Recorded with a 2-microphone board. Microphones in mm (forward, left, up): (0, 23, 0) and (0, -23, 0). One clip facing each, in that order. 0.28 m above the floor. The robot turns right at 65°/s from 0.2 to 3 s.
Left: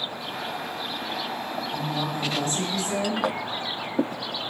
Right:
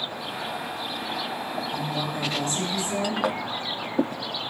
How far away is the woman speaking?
About 3 m.